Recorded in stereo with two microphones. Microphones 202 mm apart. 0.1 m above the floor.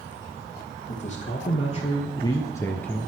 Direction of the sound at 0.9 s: 40° left (ahead or behind).